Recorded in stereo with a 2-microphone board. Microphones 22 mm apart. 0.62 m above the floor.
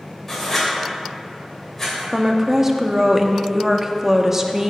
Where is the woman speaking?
15° right (ahead or behind), 0.8 m.